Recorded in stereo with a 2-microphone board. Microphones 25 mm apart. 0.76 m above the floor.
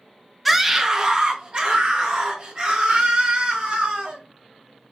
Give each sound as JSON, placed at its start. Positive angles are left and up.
{"t": 0.5, "sound": "a scream", "side_deg": -5, "distance_m": 0.6}